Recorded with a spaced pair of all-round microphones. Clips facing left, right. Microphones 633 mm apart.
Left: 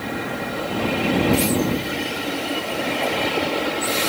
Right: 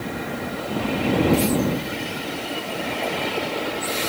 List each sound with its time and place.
Only background noise.